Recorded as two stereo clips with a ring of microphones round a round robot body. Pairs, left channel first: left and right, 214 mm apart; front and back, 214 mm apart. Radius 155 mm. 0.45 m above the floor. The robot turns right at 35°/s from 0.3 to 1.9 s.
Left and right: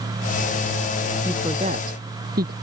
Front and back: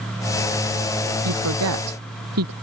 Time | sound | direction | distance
1.2 | a woman speaking | 175° right | ?